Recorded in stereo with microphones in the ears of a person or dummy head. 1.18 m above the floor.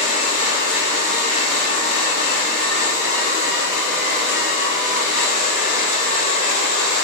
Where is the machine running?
35° left (ahead or behind), 1.3 m.